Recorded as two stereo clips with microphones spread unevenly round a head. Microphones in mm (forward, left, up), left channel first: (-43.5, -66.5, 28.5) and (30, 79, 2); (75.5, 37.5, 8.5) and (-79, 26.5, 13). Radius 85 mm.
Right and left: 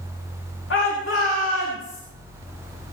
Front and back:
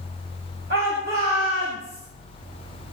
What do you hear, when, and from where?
0.7 s a shout: 135° right, 4.5 m